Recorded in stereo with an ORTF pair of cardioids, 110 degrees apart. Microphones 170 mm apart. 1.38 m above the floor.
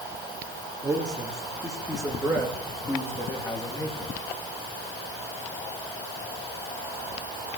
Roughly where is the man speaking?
Ahead.